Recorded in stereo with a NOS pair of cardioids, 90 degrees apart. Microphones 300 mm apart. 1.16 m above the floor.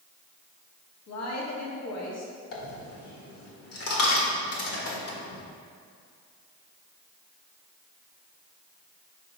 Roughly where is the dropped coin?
Ahead left.